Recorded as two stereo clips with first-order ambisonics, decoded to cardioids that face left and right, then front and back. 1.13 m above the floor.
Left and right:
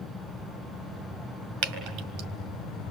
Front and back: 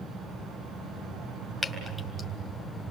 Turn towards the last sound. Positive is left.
turn(degrees=-95)